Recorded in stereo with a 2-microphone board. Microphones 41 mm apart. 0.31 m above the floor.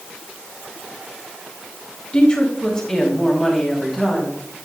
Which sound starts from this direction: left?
A woman speaking, at 2.1 s.